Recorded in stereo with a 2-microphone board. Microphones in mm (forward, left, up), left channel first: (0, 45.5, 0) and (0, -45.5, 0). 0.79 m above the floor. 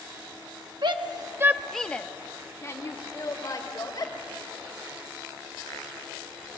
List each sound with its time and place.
0.8 s a shout: 60° right (ahead or behind), 1.1 m; by 4.1 s 40° left (ahead or behind), 4 m